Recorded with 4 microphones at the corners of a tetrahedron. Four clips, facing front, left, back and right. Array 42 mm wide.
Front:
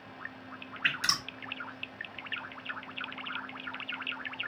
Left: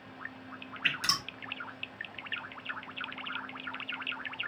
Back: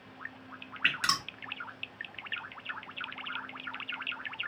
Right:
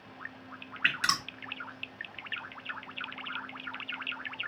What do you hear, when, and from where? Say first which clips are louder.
0.8 s dripping: right 2 dB, back 1 dB; 120° right, 2 m